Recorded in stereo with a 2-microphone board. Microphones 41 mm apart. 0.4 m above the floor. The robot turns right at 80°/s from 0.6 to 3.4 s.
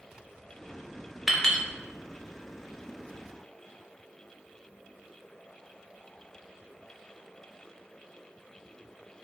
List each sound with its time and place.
1.3 s a clink: centre (ahead or behind), 0.6 m; by 1.6 s 25° left (ahead or behind), 0.6 m